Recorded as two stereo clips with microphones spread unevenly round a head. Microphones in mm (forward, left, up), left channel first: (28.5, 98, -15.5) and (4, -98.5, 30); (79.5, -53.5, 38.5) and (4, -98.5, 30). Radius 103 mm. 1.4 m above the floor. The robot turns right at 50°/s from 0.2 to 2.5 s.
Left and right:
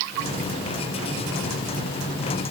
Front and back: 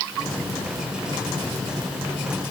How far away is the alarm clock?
No alarm clock in this recording.